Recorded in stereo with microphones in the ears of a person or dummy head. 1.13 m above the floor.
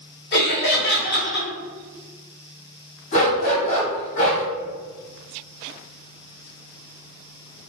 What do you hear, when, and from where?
0.3 s laughter: 50° left (ahead or behind), 1.2 m
3.1 s a dog barking: 45° left (ahead or behind), 1.5 m